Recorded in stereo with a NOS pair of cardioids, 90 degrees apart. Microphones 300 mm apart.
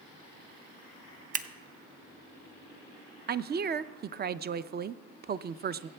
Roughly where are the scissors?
Ahead right.